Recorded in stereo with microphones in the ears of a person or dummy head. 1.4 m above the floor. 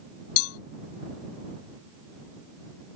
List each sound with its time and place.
0.4 s a cowbell: 90° left